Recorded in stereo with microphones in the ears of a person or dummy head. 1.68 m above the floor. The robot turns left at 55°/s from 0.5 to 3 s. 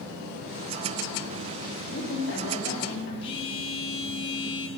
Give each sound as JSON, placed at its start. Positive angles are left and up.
{"t": 1.9, "sound": "a woman speaking", "azimuth_deg": 130, "distance_m": 4.0}
{"t": 3.2, "sound": "a phone buzzing", "side_deg": 35, "distance_m": 1.8}